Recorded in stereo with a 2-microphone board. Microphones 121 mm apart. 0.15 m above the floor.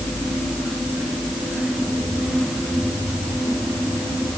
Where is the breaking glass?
I don't hear breaking glass.